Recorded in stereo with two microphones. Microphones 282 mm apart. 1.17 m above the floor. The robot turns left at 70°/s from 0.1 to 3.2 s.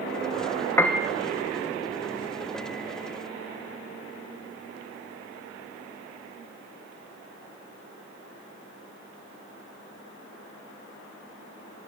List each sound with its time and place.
0.8 s a piano: 10° left (ahead or behind), 1.2 m; by 1.1 s 10° right (ahead or behind), 1.2 m